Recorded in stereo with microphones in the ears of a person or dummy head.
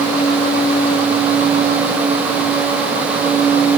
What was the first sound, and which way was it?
Only background noise.